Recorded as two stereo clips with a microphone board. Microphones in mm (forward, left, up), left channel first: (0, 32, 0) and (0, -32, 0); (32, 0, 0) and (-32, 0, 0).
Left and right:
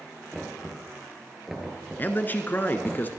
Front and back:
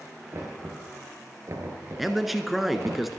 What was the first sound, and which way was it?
Knocking, 175° right.